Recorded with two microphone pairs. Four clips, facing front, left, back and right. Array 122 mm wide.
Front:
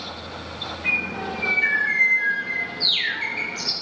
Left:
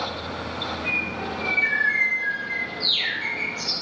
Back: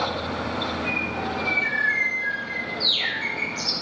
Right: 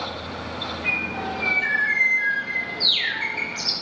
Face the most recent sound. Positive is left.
turn(degrees=-25)